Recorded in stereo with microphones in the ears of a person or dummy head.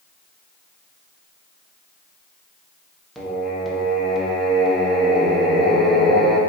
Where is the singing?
Centre (ahead or behind), 0.8 m.